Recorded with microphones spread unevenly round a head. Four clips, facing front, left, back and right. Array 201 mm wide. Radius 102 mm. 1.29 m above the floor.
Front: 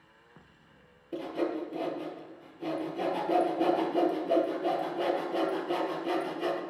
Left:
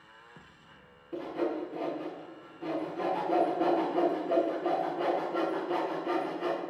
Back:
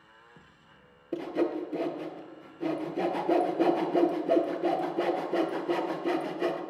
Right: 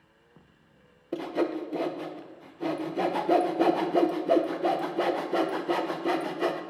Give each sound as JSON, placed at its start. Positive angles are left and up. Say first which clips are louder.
{"t": 1.1, "sound": "sawing", "louder": "right 4 dB, back 3 dB", "azimuth_deg": -145, "distance_m": 1.0}